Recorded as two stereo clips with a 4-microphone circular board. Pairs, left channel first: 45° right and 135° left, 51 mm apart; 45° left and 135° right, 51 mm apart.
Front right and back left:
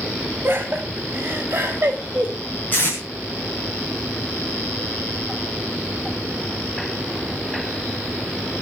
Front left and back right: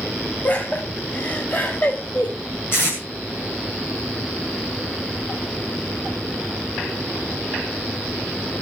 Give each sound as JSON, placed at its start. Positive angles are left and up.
{"t": 0.4, "sound": "laughter", "azimuth_deg": 90, "distance_m": 5.5}
{"t": 2.7, "sound": "tape being pulled", "azimuth_deg": 10, "distance_m": 6.5}